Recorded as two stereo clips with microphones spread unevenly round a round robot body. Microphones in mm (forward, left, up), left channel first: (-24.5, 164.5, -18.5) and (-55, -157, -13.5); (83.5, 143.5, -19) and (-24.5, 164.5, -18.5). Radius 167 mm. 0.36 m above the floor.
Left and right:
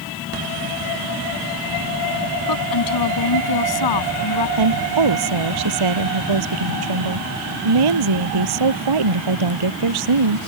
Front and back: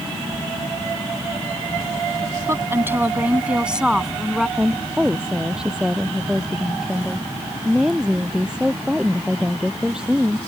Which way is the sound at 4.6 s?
105° right.